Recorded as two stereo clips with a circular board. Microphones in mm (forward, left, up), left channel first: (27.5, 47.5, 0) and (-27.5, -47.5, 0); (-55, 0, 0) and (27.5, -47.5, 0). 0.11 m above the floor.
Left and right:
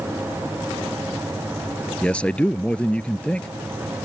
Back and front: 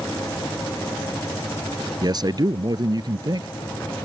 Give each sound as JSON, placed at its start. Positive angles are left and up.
{"t": 2.0, "sound": "a man speaking", "azimuth_deg": -15}